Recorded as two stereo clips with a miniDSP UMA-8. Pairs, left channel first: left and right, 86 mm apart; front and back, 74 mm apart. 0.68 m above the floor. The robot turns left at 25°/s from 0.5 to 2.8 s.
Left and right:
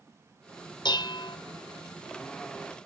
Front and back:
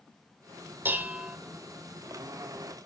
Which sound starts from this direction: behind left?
Dishes clattering, at 0.8 s.